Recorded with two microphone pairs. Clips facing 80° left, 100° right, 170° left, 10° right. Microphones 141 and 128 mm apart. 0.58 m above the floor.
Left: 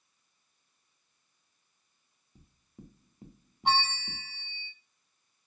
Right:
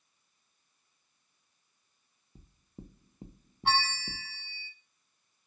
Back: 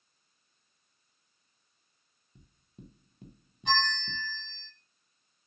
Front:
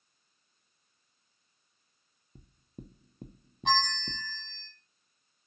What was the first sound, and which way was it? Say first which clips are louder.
Knocking: right 3 dB, front 5 dB; 40° right.